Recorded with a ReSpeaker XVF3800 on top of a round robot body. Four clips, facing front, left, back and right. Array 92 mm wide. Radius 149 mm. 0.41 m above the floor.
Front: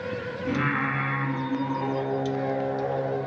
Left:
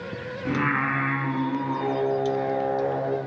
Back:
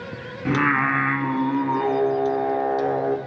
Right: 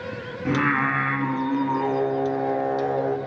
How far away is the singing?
About 1.5 m.